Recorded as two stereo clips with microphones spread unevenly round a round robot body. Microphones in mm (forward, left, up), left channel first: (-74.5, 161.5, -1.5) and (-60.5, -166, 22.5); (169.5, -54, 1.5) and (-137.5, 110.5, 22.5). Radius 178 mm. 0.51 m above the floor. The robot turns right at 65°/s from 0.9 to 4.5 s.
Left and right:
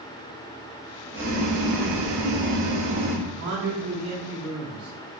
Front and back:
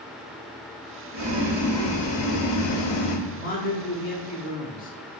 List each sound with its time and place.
1.1 s boiling: 145° right, 0.9 m; by 3.2 s 15° right, 0.9 m
3.3 s a man speaking: 75° right, 0.8 m; by 5.0 s 5° left, 0.8 m